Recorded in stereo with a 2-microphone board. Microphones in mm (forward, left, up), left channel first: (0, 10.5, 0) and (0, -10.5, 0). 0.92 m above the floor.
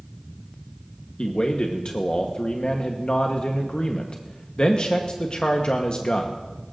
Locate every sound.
1.2 s a man speaking: 50° left (ahead or behind), 1.0 m